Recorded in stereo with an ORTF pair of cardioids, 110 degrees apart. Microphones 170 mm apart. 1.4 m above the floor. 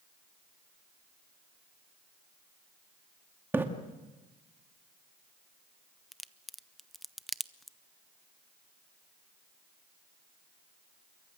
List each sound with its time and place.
3.5 s a splash: 10° right, 2.5 m
6.1 s a crack: straight ahead, 0.6 m